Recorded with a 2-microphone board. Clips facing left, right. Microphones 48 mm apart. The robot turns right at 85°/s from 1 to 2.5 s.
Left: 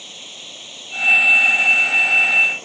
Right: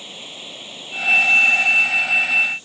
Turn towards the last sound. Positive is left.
turn(degrees=115)